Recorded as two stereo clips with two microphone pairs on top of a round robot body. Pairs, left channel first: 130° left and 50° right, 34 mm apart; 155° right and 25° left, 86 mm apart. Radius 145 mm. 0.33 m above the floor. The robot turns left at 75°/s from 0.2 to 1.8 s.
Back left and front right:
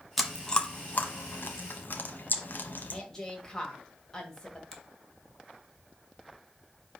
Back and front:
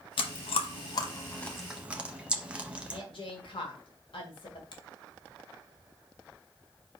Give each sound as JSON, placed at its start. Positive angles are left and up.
{"t": 0.2, "sound": "chewing", "azimuth_deg": -135, "distance_m": 0.9}
{"t": 2.9, "sound": "a woman speaking", "azimuth_deg": -160, "distance_m": 1.8}
{"t": 4.7, "sound": "a finger snap", "azimuth_deg": -145, "distance_m": 1.8}